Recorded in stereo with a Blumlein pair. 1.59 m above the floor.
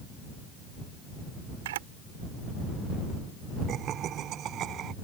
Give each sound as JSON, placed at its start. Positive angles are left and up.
{"t": 1.6, "sound": "a camera shutter", "azimuth_deg": -55}
{"t": 3.7, "sound": "laughter", "azimuth_deg": -30}